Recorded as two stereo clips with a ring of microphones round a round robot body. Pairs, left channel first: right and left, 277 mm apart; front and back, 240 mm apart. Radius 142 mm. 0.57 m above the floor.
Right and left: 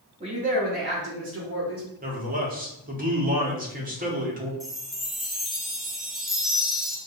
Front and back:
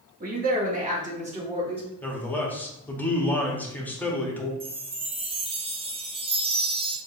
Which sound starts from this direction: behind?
A chime, at 4.6 s.